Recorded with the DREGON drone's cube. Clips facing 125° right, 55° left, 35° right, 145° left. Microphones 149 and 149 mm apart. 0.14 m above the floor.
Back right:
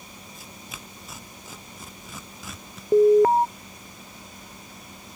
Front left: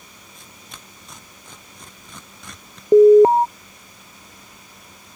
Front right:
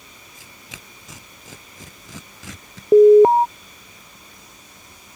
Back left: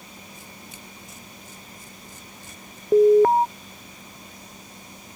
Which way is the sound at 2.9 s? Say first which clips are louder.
Front left 7 dB, front right 6 dB; 15° left.